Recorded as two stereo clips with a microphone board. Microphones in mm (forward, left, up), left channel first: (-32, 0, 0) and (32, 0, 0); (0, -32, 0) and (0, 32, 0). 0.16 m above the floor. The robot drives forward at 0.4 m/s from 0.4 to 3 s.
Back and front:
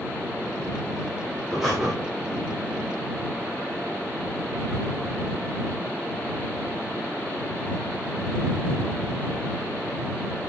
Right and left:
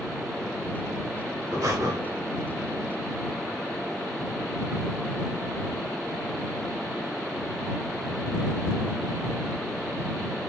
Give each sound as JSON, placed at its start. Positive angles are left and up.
{"t": 1.5, "sound": "breathing", "azimuth_deg": 90, "distance_m": 5.5}